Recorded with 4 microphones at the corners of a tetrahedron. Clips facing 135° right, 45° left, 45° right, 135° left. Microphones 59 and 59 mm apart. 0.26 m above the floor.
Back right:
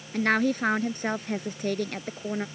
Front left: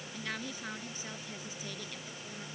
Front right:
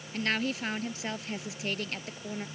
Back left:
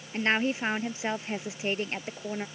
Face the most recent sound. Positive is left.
turn(degrees=-165)